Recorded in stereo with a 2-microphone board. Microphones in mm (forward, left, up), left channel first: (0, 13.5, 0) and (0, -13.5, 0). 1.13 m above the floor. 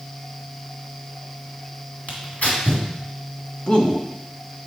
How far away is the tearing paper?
About 2 m.